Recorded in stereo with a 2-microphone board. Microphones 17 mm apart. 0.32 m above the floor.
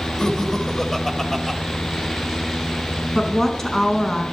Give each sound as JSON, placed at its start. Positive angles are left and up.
{"t": 0.2, "sound": "laughter", "side_deg": 40, "distance_m": 1.9}
{"t": 3.1, "sound": "a woman speaking", "side_deg": 25, "distance_m": 3.5}